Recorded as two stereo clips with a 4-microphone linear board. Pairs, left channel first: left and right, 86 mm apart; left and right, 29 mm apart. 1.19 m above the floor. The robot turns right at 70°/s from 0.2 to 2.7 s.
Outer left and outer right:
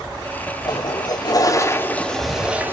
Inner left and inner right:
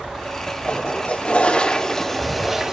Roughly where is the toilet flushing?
Ahead left.